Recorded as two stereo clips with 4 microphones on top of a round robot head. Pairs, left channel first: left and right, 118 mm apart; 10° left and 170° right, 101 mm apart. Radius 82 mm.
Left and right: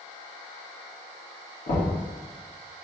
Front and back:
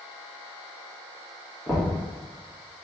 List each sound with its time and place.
1.7 s knocking: 90° left, 1.2 m